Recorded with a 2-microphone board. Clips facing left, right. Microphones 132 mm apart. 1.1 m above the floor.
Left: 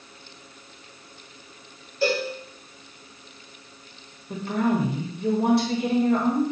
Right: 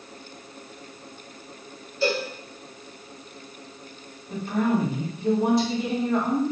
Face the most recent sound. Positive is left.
turn(degrees=65)  # may be behind; listen again after turning